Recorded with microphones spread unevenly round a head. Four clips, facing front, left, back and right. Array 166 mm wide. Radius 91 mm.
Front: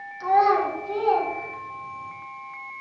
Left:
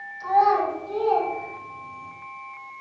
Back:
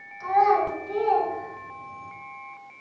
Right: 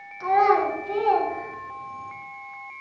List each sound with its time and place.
0.2 s a child speaking: 55° right, 2.5 m; by 2.1 s 70° right, 4 m